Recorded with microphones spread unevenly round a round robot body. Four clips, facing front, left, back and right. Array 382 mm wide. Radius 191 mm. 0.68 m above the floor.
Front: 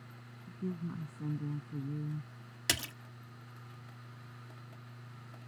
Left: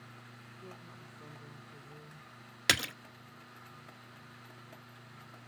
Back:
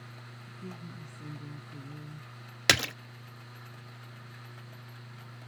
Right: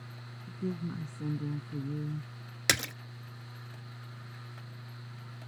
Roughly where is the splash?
Behind.